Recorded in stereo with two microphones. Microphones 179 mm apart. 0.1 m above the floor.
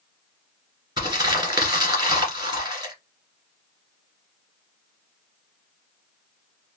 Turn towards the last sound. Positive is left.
turn(degrees=-25)  # may be behind; listen again after turning